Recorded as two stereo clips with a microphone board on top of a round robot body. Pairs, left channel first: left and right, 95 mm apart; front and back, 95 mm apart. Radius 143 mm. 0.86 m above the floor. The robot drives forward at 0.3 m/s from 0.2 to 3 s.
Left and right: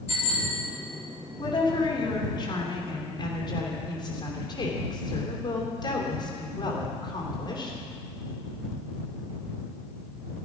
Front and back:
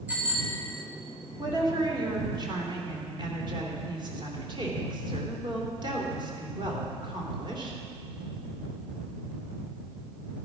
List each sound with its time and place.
0.1 s a bicycle bell: 105° left, 3 m; by 0.6 s 110° left, 3 m
1.4 s a woman speaking: 130° left, 2.5 m; by 7.8 s 135° left, 3 m